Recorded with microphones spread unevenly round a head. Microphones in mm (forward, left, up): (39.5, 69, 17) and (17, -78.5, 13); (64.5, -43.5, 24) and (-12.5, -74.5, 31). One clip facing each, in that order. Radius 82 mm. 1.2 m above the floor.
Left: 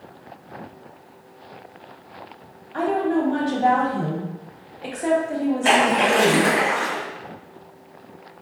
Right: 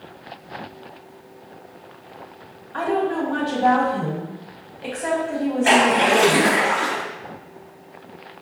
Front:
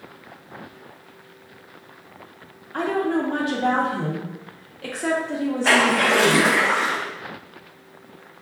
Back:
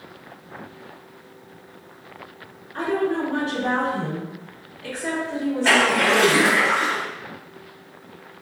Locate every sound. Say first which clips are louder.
2.7 s a woman speaking: left 1 dB, front 1 dB; 10° left, 0.9 m
5.6 s a splash: right 3 dB, even; 110° left, 1.5 m